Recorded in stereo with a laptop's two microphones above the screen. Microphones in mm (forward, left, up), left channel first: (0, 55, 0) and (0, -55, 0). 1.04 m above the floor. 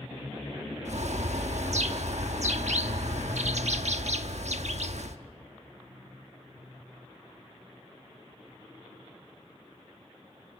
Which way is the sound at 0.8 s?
75° right (ahead or behind).